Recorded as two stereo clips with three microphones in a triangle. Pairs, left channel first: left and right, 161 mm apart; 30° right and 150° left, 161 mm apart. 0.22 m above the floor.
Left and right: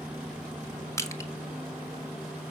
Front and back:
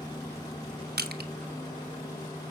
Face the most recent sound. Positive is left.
turn(degrees=160)